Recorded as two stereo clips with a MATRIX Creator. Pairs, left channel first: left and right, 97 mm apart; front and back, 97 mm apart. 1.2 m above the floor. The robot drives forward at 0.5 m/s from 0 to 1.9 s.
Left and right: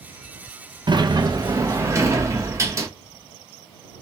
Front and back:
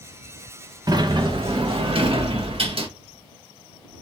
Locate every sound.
0.9 s a sliding door: 130° right, 0.7 m; by 2.9 s 150° right, 1.1 m